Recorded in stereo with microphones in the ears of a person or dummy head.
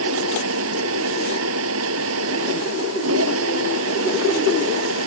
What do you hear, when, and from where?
0.0 s a machine running: 85° right